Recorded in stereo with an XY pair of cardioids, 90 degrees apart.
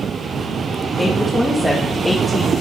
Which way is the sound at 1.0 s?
15° left.